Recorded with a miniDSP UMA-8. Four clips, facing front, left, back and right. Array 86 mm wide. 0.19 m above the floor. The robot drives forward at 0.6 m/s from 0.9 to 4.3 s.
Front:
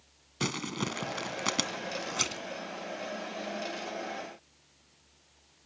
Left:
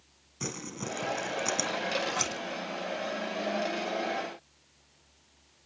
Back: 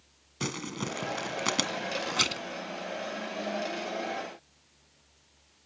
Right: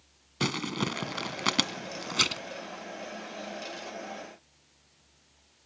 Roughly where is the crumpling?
Right.